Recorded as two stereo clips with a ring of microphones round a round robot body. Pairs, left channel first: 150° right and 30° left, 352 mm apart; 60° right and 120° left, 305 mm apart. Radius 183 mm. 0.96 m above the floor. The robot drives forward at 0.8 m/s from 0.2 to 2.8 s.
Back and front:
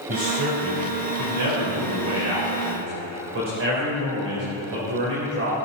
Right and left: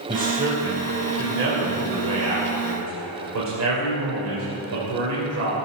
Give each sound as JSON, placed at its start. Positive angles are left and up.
{"t": 0.1, "sound": "a man speaking", "azimuth_deg": 55, "distance_m": 4.5}